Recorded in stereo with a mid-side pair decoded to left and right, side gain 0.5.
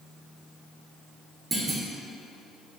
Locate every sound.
1.5 s a clunk: 35° right, 0.9 m